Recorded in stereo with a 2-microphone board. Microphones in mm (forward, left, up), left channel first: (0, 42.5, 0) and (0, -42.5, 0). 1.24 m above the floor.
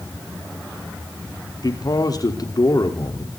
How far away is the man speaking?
About 3.5 m.